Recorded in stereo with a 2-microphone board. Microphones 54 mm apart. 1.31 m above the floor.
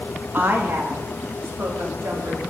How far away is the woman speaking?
About 2 m.